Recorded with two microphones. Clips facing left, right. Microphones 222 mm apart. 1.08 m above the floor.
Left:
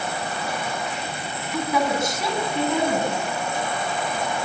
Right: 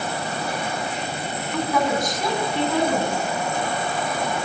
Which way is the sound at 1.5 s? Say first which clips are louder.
Right 1 dB; 10° left (ahead or behind).